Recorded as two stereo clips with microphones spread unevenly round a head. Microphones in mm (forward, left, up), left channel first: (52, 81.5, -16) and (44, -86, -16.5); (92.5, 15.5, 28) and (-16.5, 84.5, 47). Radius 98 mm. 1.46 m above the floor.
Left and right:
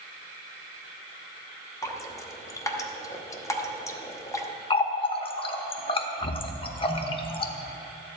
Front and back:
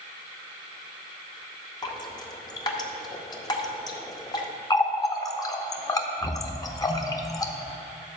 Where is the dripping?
25° left, 1.0 m.